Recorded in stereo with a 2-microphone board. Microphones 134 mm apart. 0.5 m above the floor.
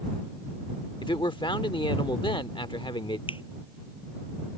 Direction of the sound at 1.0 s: 40° left (ahead or behind).